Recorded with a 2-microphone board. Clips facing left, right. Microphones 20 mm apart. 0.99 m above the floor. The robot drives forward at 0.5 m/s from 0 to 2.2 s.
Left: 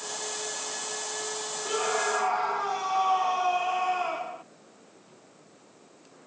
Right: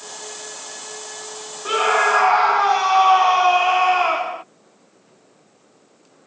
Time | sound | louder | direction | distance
1.6 | a scream | right 11 dB | 55° right (ahead or behind) | ?